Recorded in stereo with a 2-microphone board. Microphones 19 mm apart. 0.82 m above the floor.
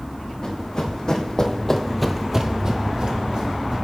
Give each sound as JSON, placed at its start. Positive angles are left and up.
{"t": 0.4, "sound": "running footsteps", "side_deg": 40, "distance_m": 2.5}